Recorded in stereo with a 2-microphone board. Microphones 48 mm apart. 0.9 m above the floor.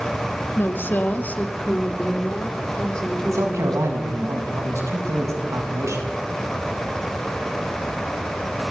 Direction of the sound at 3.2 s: 85° right.